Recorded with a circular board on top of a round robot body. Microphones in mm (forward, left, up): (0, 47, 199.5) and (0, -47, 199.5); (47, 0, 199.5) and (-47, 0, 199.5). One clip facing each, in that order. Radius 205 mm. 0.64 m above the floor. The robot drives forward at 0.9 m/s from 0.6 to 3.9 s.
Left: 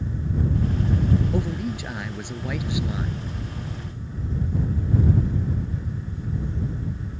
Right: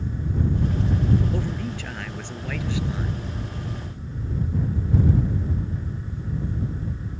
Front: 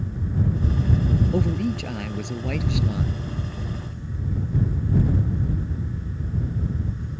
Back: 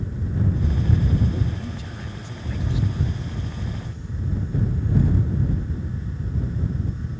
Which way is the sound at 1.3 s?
15° left.